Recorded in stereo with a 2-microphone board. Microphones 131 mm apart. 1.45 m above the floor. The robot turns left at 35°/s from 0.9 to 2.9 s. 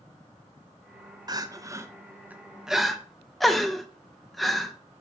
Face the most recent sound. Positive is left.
turn(degrees=0)  # may be behind; listen again after turning